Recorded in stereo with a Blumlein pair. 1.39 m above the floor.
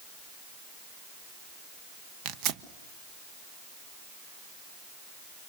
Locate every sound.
2.2 s tearing paper: 40° right, 1.0 m